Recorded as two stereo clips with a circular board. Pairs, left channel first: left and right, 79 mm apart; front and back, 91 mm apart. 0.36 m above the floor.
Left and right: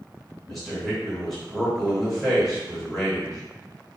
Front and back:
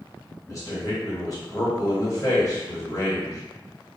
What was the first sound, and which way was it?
A man speaking, 5° left.